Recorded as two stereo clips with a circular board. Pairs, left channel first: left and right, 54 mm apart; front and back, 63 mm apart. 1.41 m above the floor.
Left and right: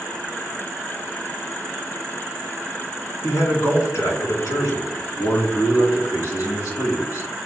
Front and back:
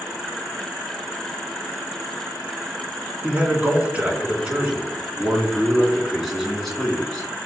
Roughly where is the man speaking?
Behind left.